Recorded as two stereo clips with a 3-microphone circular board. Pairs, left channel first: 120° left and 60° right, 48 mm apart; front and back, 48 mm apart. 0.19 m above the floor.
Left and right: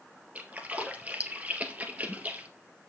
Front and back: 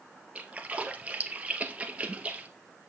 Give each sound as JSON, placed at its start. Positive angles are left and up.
{"t": 0.3, "sound": "a splash", "azimuth_deg": -115, "distance_m": 2.0}